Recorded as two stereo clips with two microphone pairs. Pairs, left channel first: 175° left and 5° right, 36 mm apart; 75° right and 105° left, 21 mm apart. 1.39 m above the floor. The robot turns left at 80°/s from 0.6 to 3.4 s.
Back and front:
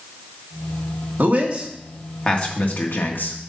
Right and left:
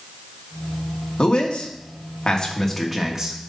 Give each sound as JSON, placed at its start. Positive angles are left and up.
{"t": 1.2, "sound": "a man speaking", "azimuth_deg": -40, "distance_m": 1.6}